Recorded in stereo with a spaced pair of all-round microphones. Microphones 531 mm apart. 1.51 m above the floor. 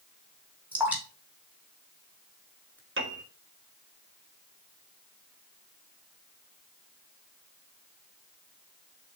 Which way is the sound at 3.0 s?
20° right (ahead or behind).